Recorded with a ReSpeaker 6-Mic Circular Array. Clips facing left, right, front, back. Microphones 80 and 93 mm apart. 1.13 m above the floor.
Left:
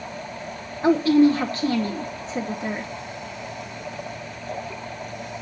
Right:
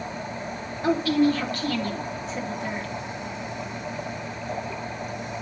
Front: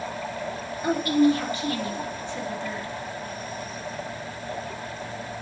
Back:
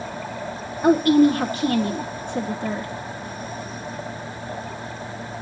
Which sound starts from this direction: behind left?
A woman speaking, at 0.8 s.